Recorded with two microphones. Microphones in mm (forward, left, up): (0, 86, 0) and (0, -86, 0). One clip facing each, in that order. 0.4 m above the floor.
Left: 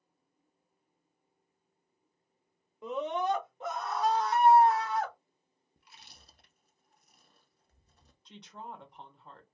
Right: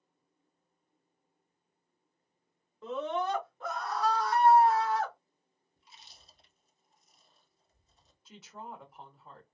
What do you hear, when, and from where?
2.8 s a scream: 15° left (ahead or behind), 1.0 m; by 5.1 s 20° left (ahead or behind), 1.5 m
5.8 s chewing: 65° left (ahead or behind), 0.8 m
8.2 s a woman speaking: 5° right (ahead or behind), 0.9 m